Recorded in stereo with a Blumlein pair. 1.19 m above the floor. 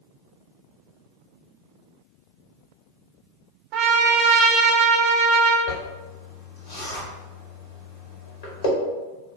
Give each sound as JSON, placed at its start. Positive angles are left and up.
{"t": 3.7, "sound": "a trumpet", "azimuth_deg": -40, "distance_m": 0.9}
{"t": 5.7, "sound": "a zipper", "azimuth_deg": 55, "distance_m": 1.7}